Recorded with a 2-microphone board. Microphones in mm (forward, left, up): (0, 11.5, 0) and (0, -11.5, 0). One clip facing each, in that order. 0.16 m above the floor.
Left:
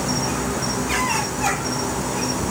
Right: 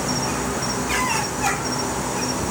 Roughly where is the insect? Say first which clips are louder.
Even; centre.